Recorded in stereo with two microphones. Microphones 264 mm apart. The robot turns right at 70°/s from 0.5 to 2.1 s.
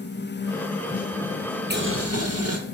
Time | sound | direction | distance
1.7 | boiling | 40° right (ahead or behind) | 1.1 m